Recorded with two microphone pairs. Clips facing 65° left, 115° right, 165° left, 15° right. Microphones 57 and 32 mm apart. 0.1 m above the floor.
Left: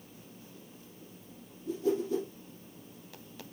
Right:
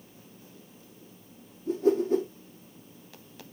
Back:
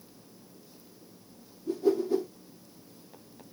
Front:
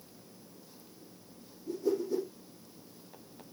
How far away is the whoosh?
About 3 m.